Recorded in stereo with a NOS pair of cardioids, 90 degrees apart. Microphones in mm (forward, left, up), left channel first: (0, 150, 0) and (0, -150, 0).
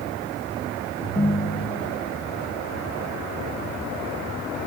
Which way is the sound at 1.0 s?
10° left.